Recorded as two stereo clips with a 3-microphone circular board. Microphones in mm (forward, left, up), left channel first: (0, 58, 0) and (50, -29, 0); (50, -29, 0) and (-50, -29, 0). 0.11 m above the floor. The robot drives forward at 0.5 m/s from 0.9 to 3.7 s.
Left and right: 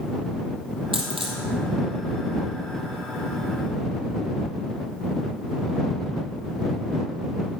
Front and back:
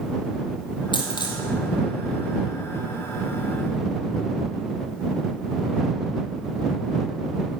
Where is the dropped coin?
40° right, 1.9 m; by 1.4 s 45° right, 1.7 m.